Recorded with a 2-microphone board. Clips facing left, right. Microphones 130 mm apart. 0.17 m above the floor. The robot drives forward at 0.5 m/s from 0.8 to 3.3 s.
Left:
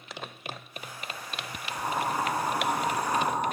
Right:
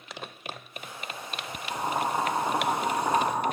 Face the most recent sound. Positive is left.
turn(degrees=-60)  # may be behind; listen again after turning